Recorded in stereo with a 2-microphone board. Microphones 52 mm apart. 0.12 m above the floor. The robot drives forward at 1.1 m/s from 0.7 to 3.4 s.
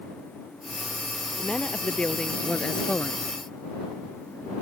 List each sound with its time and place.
1.4 s a woman speaking: 15° left (ahead or behind); by 3.3 s 25° left (ahead or behind)